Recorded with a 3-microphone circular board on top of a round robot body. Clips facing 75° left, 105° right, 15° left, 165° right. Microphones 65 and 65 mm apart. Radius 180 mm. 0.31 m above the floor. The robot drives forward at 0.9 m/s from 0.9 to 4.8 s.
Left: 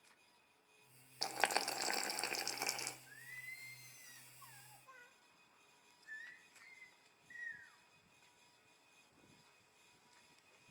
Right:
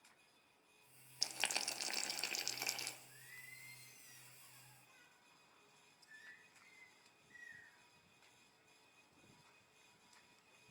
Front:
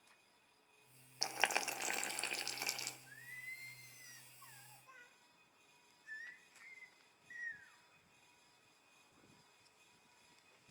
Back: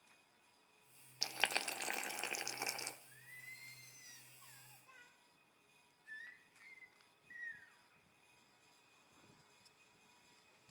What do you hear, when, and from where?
1.2 s boiling: 70° left, 1.7 m; by 3.0 s 140° left, 2 m
3.1 s singing: 50° left, 3 m; by 7.8 s 90° left, 2.5 m